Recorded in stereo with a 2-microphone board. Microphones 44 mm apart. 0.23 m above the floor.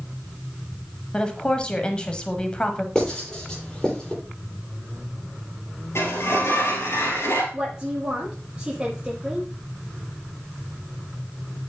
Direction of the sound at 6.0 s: 75° left (ahead or behind).